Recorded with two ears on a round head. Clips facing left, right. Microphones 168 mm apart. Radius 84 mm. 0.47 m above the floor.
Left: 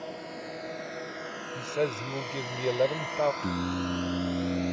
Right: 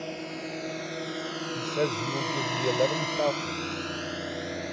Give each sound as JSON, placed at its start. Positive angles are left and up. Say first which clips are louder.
{"t": 0.0, "sound": "a drone", "louder": "right 3 dB", "side_deg": -35}
{"t": 1.6, "sound": "a man speaking", "louder": "even", "side_deg": 0}
{"t": 3.4, "sound": "singing", "louder": "left 3 dB", "side_deg": 60}